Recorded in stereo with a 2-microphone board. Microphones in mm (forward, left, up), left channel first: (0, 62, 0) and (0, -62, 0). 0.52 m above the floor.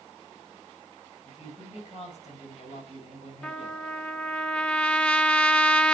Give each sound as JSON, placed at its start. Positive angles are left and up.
{"t": 1.2, "sound": "a woman speaking", "side_deg": 55, "distance_m": 4.5}
{"t": 3.4, "sound": "a trumpet", "side_deg": 10, "distance_m": 0.6}